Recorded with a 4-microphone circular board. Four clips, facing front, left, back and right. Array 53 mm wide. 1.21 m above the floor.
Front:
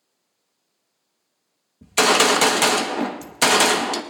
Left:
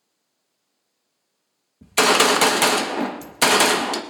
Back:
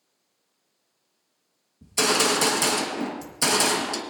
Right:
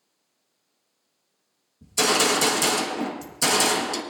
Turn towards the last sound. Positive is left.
turn(degrees=55)